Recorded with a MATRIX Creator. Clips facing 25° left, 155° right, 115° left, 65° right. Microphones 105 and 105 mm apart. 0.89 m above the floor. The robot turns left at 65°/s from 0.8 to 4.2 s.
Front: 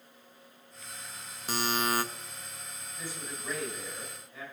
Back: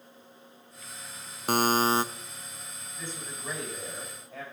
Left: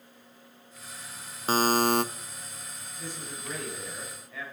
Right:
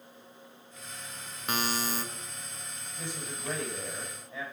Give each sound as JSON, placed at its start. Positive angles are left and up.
{"t": 1.5, "sound": "a buzzer", "azimuth_deg": 170, "distance_m": 0.5}
{"t": 3.0, "sound": "a man speaking", "azimuth_deg": -55, "distance_m": 5.5}